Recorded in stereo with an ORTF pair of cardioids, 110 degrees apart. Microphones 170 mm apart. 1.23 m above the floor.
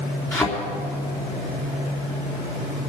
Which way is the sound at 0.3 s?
15° left.